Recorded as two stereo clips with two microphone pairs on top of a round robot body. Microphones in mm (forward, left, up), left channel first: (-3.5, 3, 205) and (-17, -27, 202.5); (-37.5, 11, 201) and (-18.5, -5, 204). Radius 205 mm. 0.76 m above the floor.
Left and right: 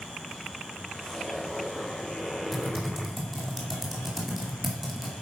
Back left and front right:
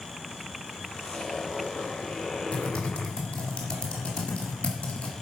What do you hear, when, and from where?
0.9 s a zipper: 140° left, 4 m
2.5 s typing on a keyboard: 160° left, 2 m